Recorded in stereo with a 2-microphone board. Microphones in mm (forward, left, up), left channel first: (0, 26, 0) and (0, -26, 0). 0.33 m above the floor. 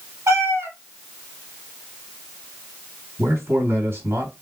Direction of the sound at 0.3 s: 60° right (ahead or behind).